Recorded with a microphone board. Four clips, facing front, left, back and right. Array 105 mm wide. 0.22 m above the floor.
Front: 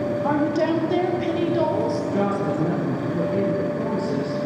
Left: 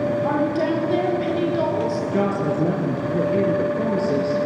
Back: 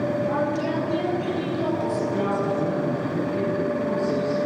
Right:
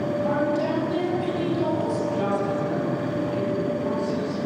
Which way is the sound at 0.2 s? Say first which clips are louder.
Left 2 dB, front 3 dB; 30° left.